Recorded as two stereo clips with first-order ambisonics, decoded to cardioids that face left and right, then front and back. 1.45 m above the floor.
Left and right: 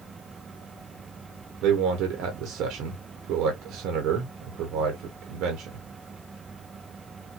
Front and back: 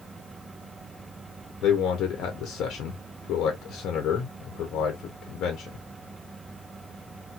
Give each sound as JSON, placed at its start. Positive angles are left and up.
{"t": 1.6, "sound": "a man speaking", "azimuth_deg": -50, "distance_m": 0.8}